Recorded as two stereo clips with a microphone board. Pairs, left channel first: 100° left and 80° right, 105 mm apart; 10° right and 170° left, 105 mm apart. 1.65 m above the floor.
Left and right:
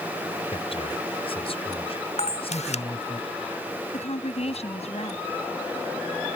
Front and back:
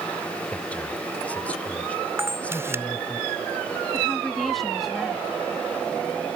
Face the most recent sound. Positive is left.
turn(degrees=80)